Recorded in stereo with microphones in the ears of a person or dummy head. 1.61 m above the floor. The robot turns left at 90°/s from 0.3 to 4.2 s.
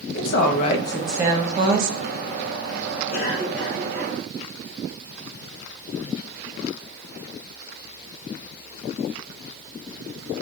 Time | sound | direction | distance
0.1 | a woman speaking | 70° left | 1.1 m
3.1 | a cough | 50° left | 2 m